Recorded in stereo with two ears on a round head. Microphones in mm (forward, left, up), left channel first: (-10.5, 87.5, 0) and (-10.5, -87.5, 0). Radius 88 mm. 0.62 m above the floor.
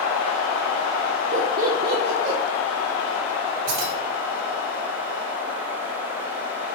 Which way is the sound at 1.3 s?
40° right (ahead or behind).